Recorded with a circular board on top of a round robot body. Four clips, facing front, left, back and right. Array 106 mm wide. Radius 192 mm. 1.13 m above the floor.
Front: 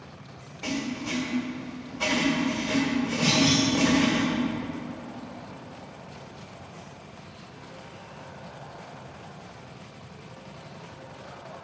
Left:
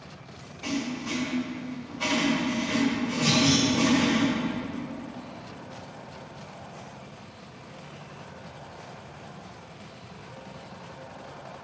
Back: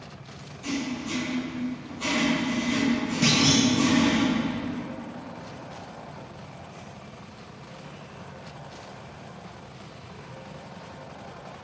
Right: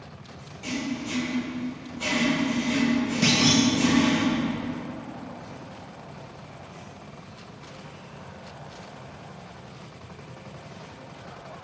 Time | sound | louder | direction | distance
0.6 | writing | even, back 1 dB | 15° left | 1.7 m
3.2 | a clunk | right 1 dB, back 2 dB | 120° right | 1.3 m